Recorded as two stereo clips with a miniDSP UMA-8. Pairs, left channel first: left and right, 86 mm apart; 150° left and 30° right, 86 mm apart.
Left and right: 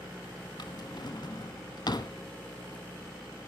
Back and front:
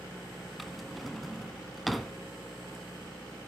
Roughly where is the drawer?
Ahead left.